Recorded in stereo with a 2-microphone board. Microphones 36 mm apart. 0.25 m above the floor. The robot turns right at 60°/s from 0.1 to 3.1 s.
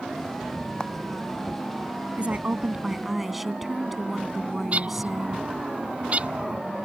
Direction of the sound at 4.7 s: 40° right (ahead or behind).